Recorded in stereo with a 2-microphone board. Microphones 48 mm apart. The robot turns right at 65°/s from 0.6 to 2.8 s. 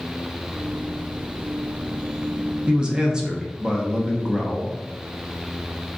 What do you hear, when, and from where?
2.7 s a man speaking: 25° right (ahead or behind), 0.6 m; by 4.8 s 15° right (ahead or behind), 0.6 m